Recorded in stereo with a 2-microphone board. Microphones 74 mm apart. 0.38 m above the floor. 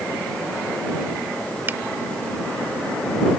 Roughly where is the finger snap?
Right.